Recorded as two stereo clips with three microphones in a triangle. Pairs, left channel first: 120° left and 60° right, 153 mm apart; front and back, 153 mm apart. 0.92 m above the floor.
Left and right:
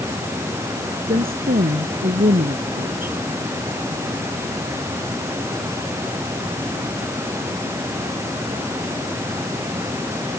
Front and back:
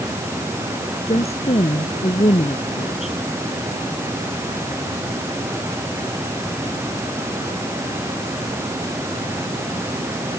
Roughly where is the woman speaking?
Ahead right.